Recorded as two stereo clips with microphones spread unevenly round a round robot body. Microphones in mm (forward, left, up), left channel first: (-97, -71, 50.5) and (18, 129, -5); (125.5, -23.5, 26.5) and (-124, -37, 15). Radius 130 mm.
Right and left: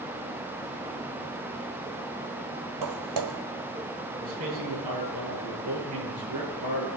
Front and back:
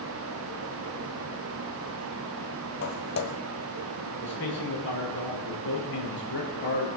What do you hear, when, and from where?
2.8 s footsteps: 50° left, 1.0 m
4.2 s a man speaking: 55° left, 8 m